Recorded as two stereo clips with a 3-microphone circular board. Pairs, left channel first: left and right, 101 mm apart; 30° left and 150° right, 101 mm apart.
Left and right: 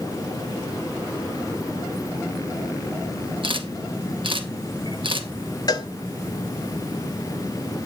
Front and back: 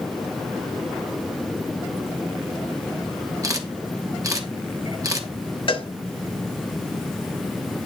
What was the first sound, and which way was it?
A camera shutter, 105° right.